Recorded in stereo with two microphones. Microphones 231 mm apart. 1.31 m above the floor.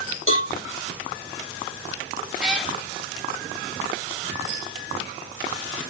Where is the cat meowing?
5° right (ahead or behind), 1.0 m.